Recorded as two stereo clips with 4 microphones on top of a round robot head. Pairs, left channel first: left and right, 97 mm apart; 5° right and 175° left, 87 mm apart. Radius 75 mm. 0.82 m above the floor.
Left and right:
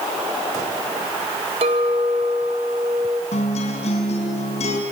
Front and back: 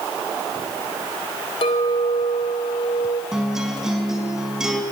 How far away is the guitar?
About 4.5 m.